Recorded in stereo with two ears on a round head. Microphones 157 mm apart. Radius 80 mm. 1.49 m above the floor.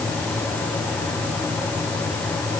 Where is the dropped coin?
No dropped coin in this recording.